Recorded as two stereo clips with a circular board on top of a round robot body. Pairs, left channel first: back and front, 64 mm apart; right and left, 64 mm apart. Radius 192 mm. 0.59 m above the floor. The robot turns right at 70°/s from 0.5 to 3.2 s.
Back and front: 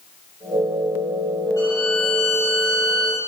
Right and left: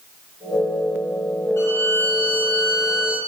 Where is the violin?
140° right, 6.5 m; by 3.2 s 30° right, 6.5 m.